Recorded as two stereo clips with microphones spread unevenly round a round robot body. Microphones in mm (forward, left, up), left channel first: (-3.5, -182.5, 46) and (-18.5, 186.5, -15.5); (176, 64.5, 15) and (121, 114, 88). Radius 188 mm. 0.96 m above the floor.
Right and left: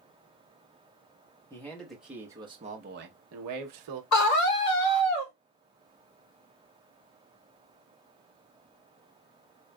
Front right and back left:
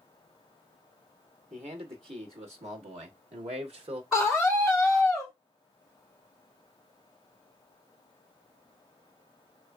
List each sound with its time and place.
1.5 s a man speaking: 175° right, 1.4 m; by 4.0 s 105° left, 0.9 m
4.1 s a scream: 120° right, 2 m